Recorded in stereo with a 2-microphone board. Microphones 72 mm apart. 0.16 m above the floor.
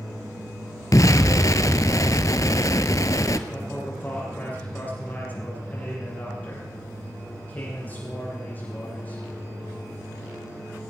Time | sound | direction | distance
0.9 | an explosion | 50° left (ahead or behind) | 0.8 m
3.5 | a man speaking | 25° left (ahead or behind) | 8 m